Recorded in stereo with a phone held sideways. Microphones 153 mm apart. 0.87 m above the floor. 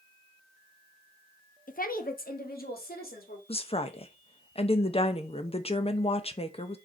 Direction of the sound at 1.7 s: 65° left (ahead or behind).